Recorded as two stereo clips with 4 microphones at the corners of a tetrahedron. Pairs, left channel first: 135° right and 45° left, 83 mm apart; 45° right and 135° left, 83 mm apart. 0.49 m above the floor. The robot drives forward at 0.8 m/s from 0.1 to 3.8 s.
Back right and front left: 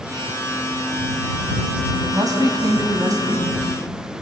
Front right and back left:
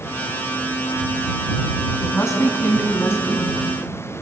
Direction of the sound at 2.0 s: 5° left.